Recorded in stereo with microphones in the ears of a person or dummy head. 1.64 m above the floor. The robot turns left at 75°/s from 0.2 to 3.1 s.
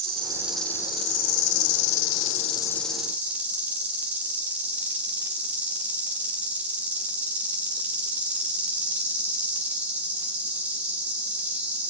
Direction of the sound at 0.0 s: 155° right.